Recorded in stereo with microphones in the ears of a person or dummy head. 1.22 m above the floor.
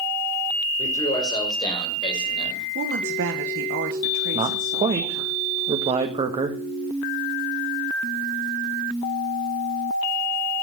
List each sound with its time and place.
0.8 s a man speaking: 20° left (ahead or behind), 5 m; by 2.7 s 30° left (ahead or behind), 6 m
2.8 s a woman speaking: 60° right (ahead or behind), 1.2 m
4.3 s a man speaking: 30° right (ahead or behind), 1.3 m